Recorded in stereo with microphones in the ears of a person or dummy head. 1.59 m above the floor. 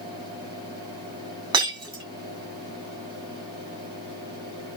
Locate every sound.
0.0 s a fan: 30° right (ahead or behind), 9.5 m
1.5 s breaking glass: 30° right (ahead or behind), 7 m